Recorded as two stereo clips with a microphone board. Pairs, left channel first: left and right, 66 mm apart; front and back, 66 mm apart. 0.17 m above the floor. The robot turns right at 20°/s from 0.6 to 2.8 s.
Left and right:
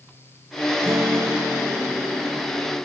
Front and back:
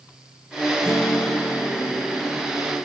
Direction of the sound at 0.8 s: 50° right.